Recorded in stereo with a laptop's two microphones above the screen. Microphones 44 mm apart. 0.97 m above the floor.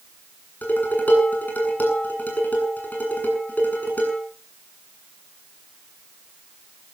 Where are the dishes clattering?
45° left (ahead or behind), 8 m.